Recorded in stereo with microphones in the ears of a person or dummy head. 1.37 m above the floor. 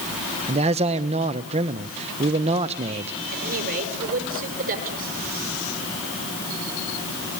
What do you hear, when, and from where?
0.5 s a man speaking: 35° right (ahead or behind), 1.0 m
3.3 s a woman speaking: 50° right (ahead or behind), 5.5 m